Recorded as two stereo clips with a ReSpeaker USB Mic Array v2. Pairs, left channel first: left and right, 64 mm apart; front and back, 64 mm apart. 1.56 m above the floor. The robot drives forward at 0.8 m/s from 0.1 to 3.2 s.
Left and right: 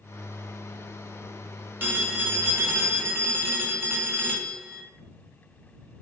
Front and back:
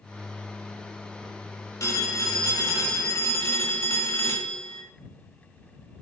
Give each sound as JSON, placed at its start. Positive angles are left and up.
{"t": 1.8, "sound": "a phone ringing", "azimuth_deg": -30, "distance_m": 3.0}